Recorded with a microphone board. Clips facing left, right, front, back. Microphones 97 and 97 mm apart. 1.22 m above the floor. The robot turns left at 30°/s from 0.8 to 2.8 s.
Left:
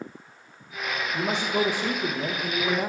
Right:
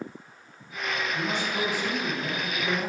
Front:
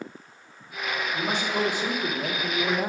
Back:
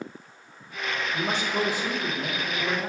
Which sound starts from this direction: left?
A man speaking, at 1.1 s.